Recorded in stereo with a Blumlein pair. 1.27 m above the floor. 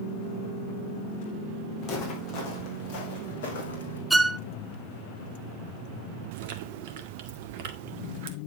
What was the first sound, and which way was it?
Footsteps, 35° left.